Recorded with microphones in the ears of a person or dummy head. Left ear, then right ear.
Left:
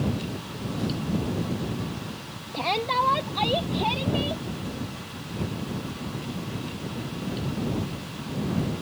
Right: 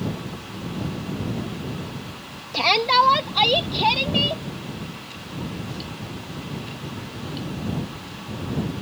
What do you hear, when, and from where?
2.5 s a shout: 65° right (ahead or behind); by 4.4 s 50° right (ahead or behind)